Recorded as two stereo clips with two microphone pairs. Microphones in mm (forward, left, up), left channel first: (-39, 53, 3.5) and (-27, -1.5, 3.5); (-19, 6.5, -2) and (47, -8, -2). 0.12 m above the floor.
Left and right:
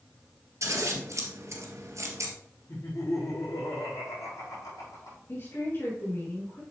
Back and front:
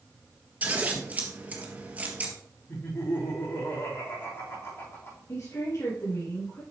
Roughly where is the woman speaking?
Behind left.